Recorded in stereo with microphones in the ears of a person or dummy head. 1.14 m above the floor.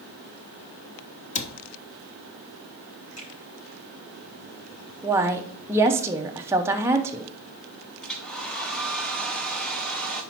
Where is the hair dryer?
10° left (ahead or behind), 1.0 m.